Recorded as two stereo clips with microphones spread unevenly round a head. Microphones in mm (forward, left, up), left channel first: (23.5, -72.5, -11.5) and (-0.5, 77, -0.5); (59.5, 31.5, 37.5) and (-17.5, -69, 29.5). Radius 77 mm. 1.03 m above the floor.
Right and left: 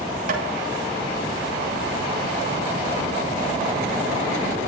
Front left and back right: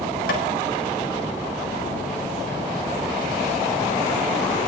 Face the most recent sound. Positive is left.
turn(degrees=65)